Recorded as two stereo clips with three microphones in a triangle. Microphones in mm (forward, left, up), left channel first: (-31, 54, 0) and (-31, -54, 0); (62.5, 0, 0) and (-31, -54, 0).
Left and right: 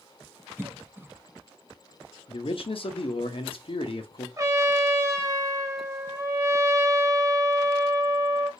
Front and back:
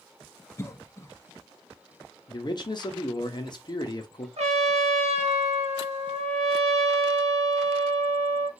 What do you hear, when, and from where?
0.6 s a cough: 25° right, 0.7 m
2.3 s a man speaking: 70° left, 0.8 m
4.4 s a trumpet: 150° right, 0.9 m